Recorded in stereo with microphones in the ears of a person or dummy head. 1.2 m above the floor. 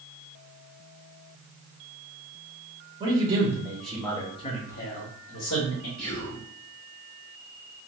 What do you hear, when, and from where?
3.0 s a man speaking: 25° right (ahead or behind), 1.1 m; by 5.9 s 60° left (ahead or behind), 1.1 m
6.0 s whispering: 5° left (ahead or behind), 1.5 m